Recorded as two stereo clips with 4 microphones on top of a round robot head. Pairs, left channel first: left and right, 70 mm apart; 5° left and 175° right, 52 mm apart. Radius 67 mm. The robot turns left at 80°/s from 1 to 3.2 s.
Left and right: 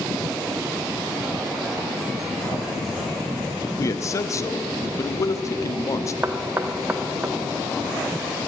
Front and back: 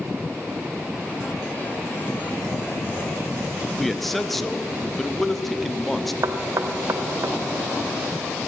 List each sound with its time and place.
3.8 s a man speaking: 90° left, 0.8 m
6.2 s knocking: 155° right, 0.7 m